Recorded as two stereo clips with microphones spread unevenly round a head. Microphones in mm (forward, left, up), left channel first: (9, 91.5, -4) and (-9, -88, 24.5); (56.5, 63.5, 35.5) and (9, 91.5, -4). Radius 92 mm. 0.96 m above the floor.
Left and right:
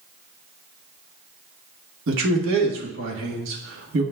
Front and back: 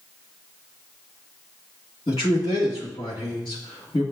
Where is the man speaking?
70° right, 1.3 m.